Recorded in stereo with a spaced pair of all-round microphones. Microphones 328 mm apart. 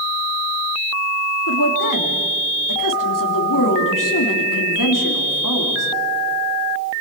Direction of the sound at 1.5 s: 70° left (ahead or behind).